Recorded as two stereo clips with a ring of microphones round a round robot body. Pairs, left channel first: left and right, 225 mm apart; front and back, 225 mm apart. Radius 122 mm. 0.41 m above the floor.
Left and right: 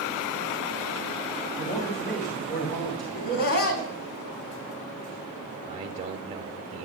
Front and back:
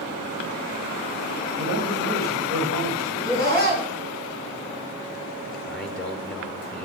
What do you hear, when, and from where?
1.6 s a man speaking: 140° left, 2.5 m
3.1 s laughter: 75° left, 3.5 m
5.7 s a man speaking: 85° right, 0.9 m